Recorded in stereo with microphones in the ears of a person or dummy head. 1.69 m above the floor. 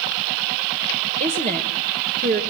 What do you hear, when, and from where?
1.2 s a woman speaking: 35° right (ahead or behind), 1.5 m